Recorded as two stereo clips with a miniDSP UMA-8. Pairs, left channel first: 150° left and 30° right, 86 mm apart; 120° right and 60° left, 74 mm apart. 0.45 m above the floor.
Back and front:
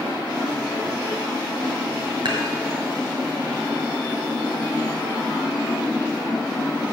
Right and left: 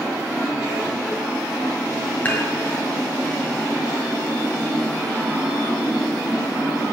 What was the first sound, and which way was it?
Dishes clattering, 55° right.